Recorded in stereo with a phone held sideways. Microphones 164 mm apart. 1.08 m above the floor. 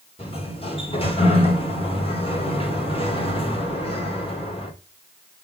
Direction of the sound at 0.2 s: 35° left (ahead or behind).